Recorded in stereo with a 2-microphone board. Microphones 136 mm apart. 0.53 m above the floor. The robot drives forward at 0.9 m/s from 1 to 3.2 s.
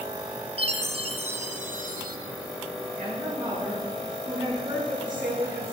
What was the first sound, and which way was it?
A chime, 45° right (ahead or behind).